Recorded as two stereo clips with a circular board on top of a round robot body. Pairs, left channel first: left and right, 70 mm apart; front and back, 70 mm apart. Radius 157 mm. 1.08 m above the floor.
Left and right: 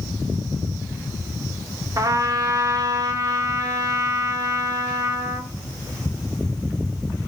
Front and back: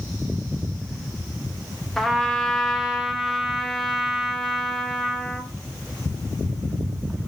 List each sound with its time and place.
2.0 s a trumpet: 90° right, 0.9 m